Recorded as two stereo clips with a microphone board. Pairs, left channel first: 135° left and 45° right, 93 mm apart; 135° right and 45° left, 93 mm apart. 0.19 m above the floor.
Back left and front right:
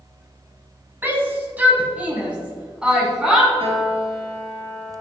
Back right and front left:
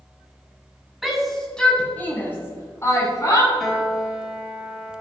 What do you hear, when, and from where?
1.0 s a shout: 45° right, 1.6 m; by 3.5 s 125° right, 2.0 m
3.6 s a piano: 50° right, 1.6 m